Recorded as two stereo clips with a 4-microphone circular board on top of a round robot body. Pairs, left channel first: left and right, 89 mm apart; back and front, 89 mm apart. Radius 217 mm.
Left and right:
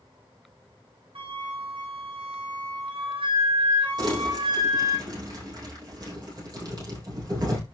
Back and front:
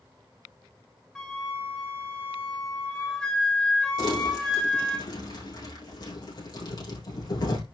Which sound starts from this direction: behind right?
Crumpling, at 4.0 s.